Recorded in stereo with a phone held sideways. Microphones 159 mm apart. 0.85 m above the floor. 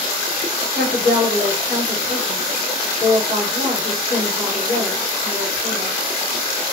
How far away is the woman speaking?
About 2 m.